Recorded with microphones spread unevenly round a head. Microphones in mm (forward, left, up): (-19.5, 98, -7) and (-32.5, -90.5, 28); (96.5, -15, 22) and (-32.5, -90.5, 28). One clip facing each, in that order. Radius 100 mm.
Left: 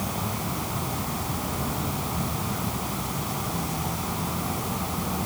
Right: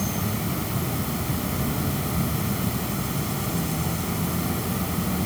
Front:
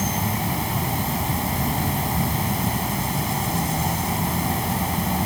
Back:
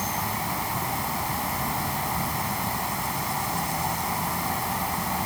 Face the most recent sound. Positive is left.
turn(degrees=-30)